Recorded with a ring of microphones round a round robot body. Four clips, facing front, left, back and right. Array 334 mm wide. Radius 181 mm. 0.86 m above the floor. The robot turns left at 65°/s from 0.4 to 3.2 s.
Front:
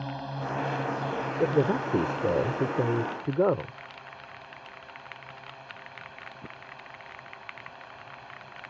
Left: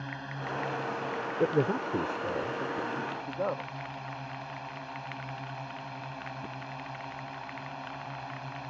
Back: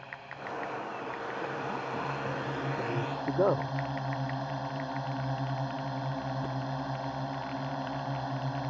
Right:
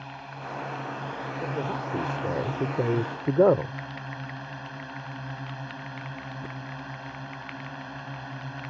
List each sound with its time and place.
0.0 s a drone: 20° left; by 8.7 s 160° right
1.4 s a man speaking: 40° left; by 3.7 s 75° right